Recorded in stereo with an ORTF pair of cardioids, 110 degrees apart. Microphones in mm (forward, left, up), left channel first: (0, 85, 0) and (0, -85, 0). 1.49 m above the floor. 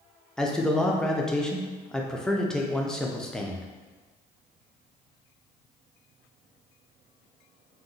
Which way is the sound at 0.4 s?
5° left.